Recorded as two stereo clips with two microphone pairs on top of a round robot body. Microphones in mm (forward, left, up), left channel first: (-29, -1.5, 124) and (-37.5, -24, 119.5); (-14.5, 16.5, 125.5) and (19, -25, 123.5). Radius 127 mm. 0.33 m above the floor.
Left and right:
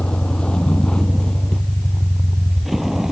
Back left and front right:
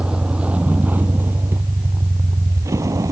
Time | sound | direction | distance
0.0 | a vehicle | 20° left | ?